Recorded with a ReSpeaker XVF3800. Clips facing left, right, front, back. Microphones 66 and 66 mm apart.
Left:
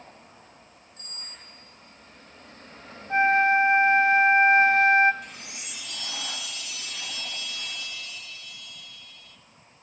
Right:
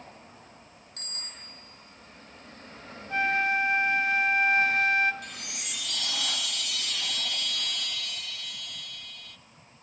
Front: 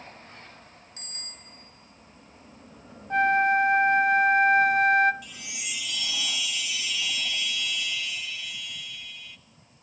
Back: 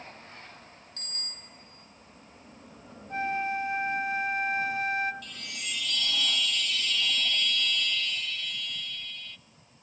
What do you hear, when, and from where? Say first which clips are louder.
1.0 s a bicycle bell: right 1 dB, back 3 dB; 75° right, 4 m
3.1 s a flute: left 6 dB, front 9 dB; 30° left, 0.5 m
5.2 s a chime: right 1 dB, even; 80° right, 0.7 m